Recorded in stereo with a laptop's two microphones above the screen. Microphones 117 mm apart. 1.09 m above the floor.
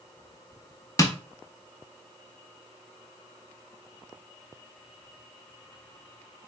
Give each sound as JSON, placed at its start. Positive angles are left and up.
{"t": 1.0, "sound": "tapping", "side_deg": 30, "distance_m": 0.5}